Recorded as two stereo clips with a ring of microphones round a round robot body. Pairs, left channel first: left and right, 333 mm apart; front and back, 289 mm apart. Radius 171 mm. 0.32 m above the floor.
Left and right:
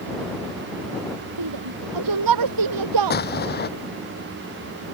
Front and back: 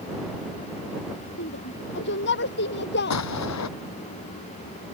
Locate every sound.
1.4 s a shout: 60° right
3.1 s an explosion: 30° left